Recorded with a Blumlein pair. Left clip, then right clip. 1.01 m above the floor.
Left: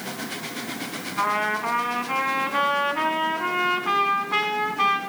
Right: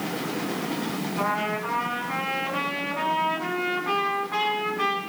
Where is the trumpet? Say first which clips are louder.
Left 4 dB; 15° left, 3.5 m.